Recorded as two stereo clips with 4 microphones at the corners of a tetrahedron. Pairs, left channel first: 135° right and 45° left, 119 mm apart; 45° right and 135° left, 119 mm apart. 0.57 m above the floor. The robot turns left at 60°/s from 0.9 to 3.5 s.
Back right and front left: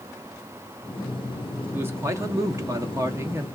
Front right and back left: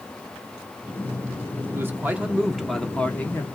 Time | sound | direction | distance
1.7 | a man speaking | 100° left | 1.1 m